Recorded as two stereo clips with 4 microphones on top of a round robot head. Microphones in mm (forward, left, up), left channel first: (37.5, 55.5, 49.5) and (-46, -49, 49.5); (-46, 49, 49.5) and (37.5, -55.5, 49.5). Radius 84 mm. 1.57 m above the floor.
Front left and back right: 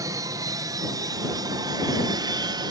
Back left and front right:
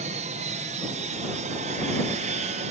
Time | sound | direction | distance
0.0 | an aircraft | 65° right | ?